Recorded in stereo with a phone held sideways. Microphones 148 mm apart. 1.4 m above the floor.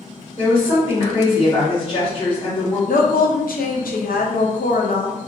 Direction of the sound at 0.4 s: 35° left (ahead or behind).